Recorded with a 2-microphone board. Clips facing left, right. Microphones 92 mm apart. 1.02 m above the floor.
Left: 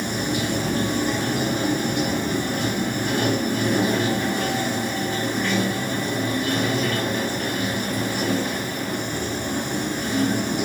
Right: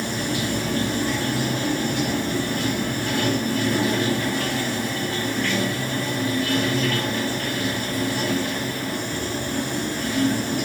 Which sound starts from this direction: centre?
Running water, at 0.0 s.